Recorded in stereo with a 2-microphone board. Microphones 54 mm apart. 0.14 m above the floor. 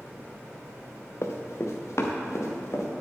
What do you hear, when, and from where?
1.2 s running footsteps: 60° left (ahead or behind), 1.3 m; by 2.9 s 65° left (ahead or behind), 2.5 m